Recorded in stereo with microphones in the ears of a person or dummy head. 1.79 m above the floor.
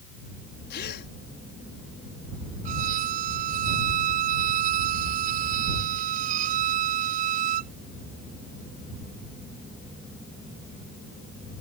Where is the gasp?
60° left (ahead or behind).